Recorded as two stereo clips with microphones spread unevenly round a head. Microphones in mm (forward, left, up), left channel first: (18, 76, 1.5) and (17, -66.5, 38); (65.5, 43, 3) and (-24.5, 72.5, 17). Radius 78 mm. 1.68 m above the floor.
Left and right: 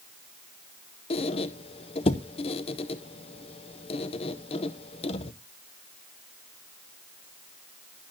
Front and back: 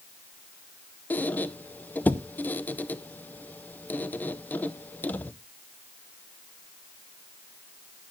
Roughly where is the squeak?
Ahead left.